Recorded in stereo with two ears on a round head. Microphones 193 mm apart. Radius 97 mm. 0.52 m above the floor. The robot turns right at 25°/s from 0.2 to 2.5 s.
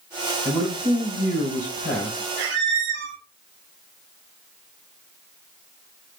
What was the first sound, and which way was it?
A man speaking, 15° right.